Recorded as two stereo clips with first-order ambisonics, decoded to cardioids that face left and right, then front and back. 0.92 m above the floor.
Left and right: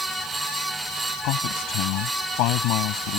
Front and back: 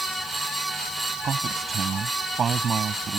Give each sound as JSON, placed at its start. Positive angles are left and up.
{"t": 1.2, "sound": "a man speaking", "azimuth_deg": 115}